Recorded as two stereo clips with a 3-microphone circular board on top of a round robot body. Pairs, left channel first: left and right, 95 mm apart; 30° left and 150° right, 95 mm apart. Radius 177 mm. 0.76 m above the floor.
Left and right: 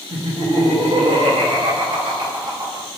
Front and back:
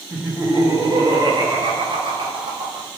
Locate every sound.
0.1 s laughter: 80° right, 1.6 m; by 2.9 s 135° right, 2.0 m